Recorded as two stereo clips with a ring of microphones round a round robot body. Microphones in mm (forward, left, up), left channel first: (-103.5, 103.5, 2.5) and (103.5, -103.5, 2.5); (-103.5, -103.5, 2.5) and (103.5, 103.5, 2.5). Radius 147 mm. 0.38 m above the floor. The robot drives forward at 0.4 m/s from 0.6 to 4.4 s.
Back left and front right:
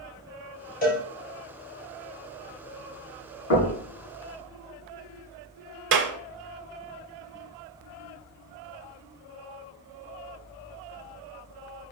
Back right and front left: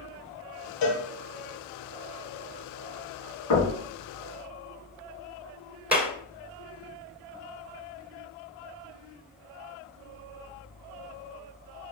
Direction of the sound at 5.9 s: 40° right.